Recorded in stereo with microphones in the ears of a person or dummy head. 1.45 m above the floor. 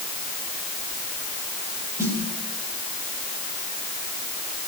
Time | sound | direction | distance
2.0 | a snare drum | 15° right (ahead or behind) | 6 m